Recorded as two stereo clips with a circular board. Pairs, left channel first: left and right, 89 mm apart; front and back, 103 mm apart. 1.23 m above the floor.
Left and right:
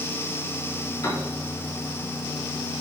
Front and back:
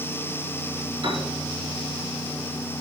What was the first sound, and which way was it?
A piano, 140° left.